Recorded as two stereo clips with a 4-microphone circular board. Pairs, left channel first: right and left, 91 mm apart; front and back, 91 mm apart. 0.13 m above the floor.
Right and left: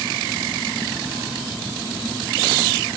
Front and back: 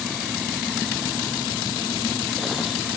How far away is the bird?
No bird in this recording.